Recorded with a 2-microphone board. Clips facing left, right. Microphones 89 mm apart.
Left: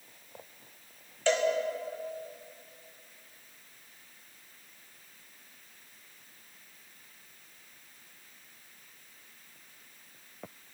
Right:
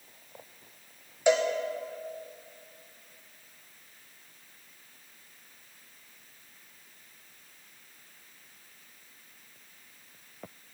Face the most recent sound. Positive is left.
turn(degrees=-15)  # may be behind; listen again after turning